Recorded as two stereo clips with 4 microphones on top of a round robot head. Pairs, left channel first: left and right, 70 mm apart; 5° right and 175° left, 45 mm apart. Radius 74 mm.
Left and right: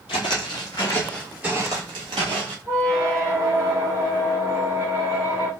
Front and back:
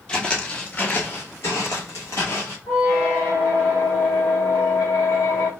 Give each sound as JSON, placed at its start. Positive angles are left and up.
{"t": 0.1, "sound": "footsteps", "azimuth_deg": 65, "distance_m": 0.8}
{"t": 2.7, "sound": "a squeak", "azimuth_deg": -25, "distance_m": 0.8}